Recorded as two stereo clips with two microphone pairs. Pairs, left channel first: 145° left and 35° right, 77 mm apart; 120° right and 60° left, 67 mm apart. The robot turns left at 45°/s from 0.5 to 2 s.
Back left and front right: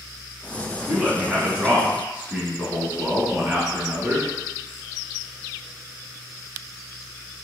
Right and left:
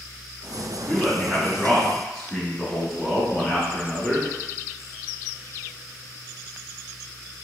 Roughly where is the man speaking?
Ahead.